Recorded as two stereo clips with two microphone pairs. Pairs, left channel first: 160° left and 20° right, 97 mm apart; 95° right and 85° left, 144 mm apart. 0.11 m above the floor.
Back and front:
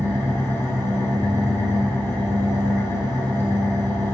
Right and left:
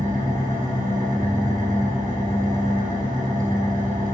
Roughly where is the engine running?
Left.